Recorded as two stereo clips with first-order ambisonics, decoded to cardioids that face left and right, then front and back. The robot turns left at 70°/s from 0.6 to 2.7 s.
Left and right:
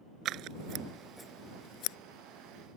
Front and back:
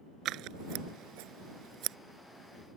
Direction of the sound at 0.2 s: 140° right.